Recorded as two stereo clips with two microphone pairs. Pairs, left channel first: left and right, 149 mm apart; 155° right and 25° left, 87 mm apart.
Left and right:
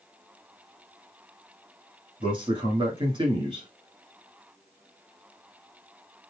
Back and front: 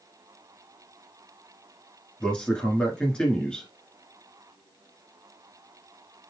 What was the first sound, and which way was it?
A man speaking, 80° right.